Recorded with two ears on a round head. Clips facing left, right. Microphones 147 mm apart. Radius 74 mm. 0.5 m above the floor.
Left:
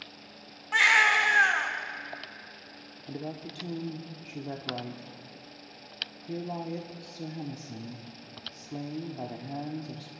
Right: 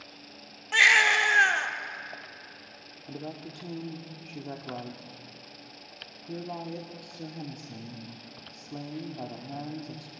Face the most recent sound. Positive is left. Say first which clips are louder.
# left 1 dB
turn(degrees=10)  # may be behind; listen again after turning